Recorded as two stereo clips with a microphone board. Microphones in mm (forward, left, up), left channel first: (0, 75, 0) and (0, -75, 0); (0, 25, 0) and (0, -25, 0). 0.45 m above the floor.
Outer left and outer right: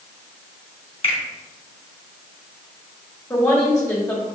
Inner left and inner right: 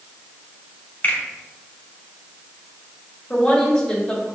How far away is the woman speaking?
About 1.6 m.